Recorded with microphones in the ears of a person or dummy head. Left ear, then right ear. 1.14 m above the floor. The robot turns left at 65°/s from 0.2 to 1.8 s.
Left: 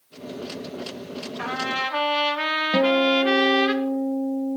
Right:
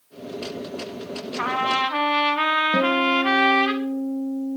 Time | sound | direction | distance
1.4 | a trumpet | 45° right (ahead or behind) | 1.7 m
2.7 | a guitar | 15° left (ahead or behind) | 0.6 m